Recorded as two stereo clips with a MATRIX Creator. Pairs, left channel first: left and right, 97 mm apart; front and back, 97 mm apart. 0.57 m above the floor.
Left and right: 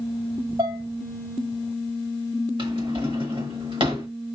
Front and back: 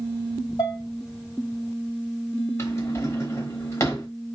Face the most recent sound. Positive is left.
turn(degrees=-60)